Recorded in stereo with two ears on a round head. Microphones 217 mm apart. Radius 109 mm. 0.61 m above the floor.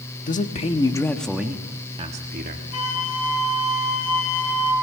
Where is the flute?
75° left (ahead or behind), 4 m.